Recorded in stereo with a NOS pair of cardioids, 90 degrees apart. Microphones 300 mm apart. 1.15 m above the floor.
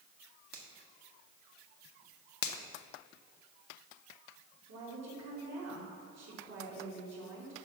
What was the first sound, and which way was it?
A finger snap, 50° right.